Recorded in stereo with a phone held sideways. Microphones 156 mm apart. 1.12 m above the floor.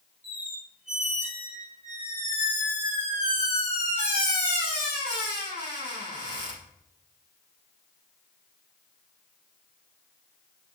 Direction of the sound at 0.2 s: 55° right (ahead or behind).